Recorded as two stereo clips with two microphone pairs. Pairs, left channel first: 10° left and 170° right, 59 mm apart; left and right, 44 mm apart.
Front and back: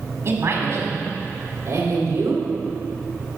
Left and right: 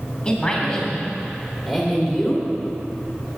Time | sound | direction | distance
0.2 | a man speaking | 160° left | 2.5 m